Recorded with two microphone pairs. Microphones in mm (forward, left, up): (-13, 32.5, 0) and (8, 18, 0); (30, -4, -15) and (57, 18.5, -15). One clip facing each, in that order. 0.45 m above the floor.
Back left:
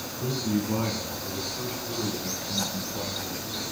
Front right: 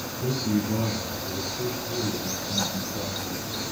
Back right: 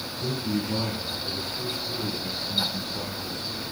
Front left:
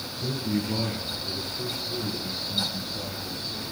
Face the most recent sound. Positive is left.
turn(degrees=-175)